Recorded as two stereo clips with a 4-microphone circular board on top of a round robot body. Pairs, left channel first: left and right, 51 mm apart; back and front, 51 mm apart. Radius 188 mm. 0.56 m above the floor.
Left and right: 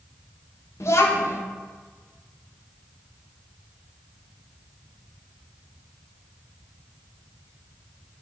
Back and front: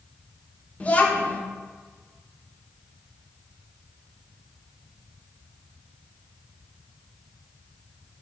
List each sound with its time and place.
0.8 s a child speaking: 115° left, 1.0 m